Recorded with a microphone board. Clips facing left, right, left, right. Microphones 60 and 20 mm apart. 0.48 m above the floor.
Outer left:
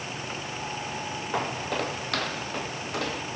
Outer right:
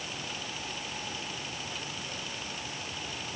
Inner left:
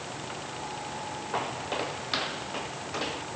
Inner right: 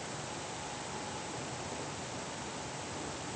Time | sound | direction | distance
1.3 | footsteps | 70° left (ahead or behind) | ?